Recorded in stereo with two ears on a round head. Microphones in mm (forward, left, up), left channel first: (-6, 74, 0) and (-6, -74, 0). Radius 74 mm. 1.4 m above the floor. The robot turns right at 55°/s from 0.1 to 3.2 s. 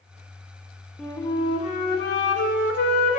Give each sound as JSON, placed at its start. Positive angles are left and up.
{"t": 1.0, "sound": "a flute", "azimuth_deg": 5, "distance_m": 2.0}